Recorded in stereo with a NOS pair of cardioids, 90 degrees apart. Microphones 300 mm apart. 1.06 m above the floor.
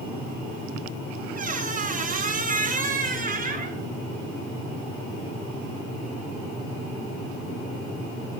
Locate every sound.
1.4 s a squeak: 30° right, 3 m